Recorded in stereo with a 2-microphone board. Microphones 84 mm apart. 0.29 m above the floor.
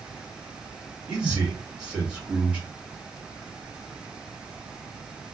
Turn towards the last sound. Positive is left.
turn(degrees=-15)  # may be behind; listen again after turning